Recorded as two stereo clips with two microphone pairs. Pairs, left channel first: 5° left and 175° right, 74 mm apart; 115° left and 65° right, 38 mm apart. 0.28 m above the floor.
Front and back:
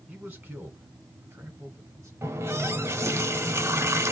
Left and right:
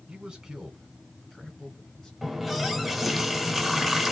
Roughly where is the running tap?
Behind right.